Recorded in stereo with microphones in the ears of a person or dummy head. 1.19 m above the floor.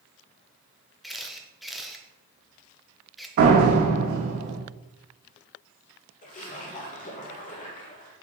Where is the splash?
40° left (ahead or behind), 1.5 m.